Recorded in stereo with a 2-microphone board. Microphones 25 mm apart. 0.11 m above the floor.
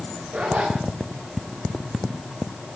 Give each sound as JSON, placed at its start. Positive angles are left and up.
{"t": 0.3, "sound": "a zipper", "side_deg": -45, "distance_m": 6.5}